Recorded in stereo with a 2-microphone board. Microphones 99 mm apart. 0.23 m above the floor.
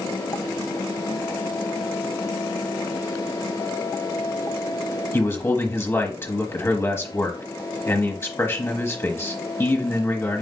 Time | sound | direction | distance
5.1 | a man speaking | 25° left (ahead or behind) | 1.1 m